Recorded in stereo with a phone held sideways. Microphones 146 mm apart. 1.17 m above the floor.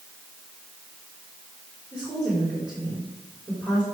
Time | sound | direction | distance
1.9 | a woman speaking | 5° right (ahead or behind) | 4 m